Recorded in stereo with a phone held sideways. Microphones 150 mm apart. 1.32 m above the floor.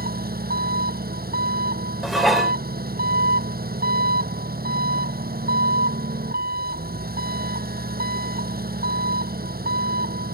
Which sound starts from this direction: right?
An engine running, at 0.0 s.